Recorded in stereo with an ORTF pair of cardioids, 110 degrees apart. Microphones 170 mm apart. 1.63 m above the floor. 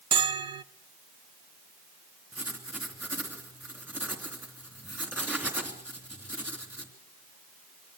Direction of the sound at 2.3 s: 10° right.